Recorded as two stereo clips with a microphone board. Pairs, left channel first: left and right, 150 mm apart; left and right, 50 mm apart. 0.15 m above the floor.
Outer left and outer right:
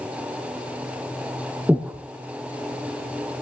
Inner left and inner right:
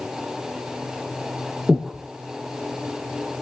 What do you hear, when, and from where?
1.7 s breathing: 10° right (ahead or behind), 1.1 m